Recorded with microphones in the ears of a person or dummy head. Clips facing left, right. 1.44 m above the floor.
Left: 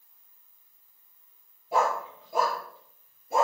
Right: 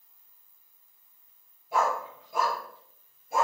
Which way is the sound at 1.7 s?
30° left (ahead or behind).